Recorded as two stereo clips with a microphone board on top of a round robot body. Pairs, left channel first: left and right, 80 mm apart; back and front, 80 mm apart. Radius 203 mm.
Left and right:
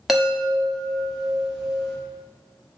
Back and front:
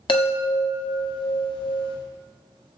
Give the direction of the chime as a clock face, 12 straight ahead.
6 o'clock.